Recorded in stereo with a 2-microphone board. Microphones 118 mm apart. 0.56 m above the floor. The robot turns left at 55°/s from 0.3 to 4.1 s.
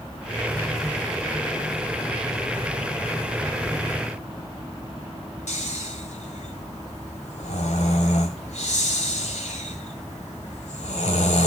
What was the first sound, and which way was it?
Snoring, 85° left.